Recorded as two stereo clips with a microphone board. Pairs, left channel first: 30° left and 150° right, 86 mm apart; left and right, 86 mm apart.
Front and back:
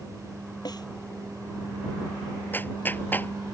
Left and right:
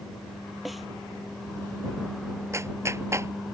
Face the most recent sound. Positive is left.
turn(degrees=-35)